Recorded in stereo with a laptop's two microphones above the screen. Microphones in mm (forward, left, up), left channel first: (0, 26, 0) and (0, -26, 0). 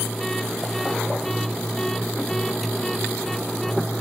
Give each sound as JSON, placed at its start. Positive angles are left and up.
{"t": 0.0, "sound": "a machine running", "side_deg": 0}